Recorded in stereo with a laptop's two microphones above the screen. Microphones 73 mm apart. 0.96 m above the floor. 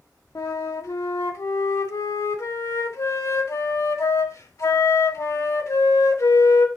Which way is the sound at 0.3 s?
50° left (ahead or behind).